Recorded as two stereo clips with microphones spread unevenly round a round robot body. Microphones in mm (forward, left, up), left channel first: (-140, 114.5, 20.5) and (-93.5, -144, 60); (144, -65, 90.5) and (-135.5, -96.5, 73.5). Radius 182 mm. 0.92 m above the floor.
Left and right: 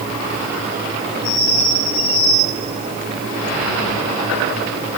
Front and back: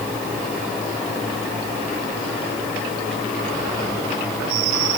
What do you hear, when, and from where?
Only background noise.